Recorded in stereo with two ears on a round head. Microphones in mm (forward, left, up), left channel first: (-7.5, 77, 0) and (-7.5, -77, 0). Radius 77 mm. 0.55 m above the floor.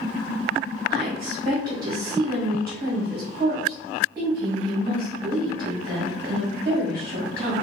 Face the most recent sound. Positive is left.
turn(degrees=-25)  # may be behind; listen again after turning